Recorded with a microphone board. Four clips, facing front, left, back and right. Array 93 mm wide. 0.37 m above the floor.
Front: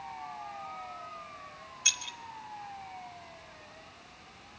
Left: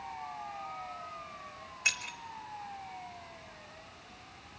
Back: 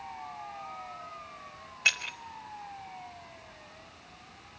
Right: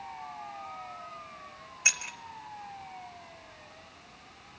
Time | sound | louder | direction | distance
1.9 | keys jangling | right 2 dB, back 8 dB | 160° right | 0.7 m